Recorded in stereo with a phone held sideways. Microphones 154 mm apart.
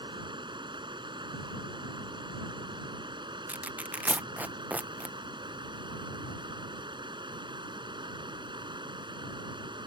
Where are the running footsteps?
No running footsteps in this recording.